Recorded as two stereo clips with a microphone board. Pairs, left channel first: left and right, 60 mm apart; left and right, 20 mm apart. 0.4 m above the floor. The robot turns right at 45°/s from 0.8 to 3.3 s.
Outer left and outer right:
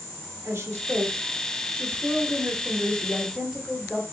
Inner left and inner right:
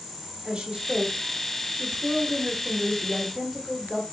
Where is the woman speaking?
105° right, 1.1 m; by 4.0 s 5° left, 1.1 m.